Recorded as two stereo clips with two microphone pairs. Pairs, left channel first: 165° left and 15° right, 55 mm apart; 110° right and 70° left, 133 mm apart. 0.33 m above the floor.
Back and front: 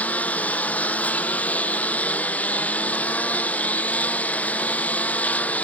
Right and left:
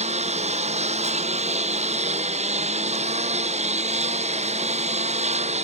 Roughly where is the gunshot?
No gunshot in this recording.